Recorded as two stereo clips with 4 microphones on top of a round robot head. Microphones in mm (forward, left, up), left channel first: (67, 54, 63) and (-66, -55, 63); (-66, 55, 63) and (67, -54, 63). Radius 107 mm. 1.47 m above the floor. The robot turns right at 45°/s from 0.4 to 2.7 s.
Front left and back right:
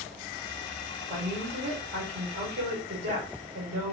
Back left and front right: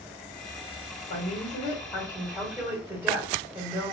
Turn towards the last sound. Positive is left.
turn(degrees=-110)